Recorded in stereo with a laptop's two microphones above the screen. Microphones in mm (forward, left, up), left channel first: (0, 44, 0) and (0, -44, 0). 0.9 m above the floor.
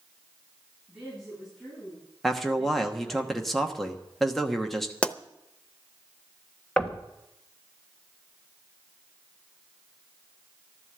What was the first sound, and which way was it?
A woman speaking, centre (ahead or behind).